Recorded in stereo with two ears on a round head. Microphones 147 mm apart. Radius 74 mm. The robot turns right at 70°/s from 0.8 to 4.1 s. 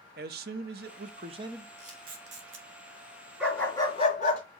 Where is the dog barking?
5° right, 3.5 m; by 4.4 s 45° left, 3.5 m.